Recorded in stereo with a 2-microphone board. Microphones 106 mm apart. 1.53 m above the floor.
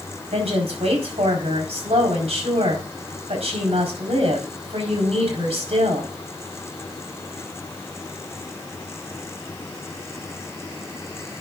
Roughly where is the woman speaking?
Right.